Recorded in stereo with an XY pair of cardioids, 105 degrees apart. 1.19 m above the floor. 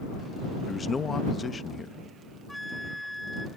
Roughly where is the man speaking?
Ahead left.